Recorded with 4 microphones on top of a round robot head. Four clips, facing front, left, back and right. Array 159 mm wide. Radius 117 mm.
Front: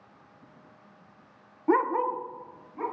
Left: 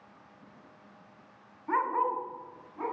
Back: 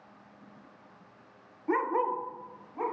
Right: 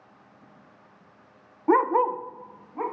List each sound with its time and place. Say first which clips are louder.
1.7 s a dog barking: right 8 dB, front 4 dB; 60° right, 0.5 m; by 2.8 s 115° right, 1.9 m